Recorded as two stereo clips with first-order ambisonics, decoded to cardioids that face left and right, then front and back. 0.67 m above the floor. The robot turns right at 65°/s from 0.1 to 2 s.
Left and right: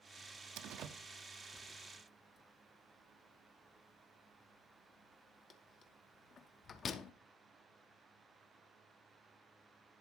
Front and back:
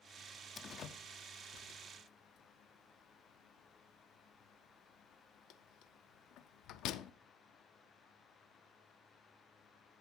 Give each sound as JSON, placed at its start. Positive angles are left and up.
{"t": 0.6, "sound": "a door slam", "azimuth_deg": -65, "distance_m": 0.6}